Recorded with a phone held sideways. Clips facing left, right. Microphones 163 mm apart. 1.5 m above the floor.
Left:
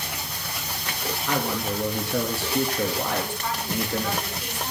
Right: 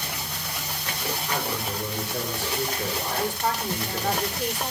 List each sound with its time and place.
1.3 s a man speaking: 75° left (ahead or behind), 3 m
3.2 s a woman speaking: 40° right (ahead or behind), 5 m